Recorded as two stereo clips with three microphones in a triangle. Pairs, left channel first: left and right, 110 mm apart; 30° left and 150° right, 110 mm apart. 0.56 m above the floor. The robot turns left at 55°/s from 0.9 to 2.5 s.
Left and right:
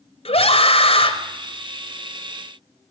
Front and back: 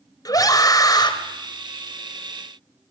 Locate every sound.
0.2 s a scream: 80° left, 2.5 m; by 1.1 s 65° left, 2.5 m